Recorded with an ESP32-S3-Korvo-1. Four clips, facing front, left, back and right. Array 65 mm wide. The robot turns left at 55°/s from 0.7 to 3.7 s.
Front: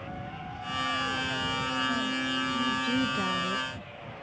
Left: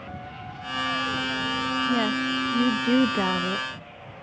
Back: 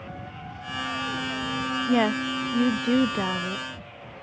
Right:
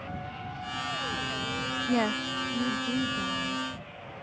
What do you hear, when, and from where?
1.9 s a woman speaking: 170° right; by 3.7 s 90° left